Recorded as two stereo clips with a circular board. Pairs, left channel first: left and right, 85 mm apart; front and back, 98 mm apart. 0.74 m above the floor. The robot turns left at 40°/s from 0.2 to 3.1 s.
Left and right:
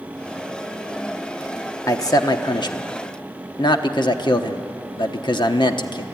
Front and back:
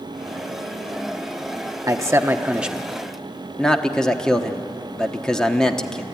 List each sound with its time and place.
1.9 s a man speaking: 135° left, 1.1 m; by 6.0 s 85° left, 1.1 m